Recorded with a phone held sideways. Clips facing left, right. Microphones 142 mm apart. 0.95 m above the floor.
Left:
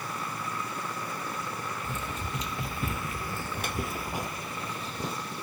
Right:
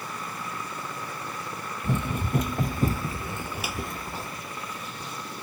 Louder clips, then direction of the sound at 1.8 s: Right 7 dB; 65° right (ahead or behind).